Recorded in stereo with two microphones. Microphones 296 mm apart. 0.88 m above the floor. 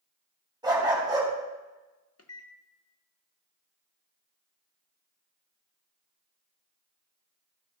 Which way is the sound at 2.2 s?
55° left (ahead or behind).